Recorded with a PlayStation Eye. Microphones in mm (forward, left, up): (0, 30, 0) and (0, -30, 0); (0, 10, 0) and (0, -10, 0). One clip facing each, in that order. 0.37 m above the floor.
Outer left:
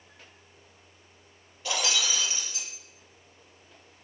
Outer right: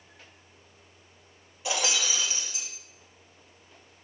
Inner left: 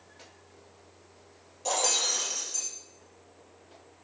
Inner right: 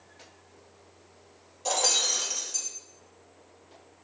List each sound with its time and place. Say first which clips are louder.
1.6 s breaking glass: even, inner right 2 dB; 15° right (ahead or behind), 2 m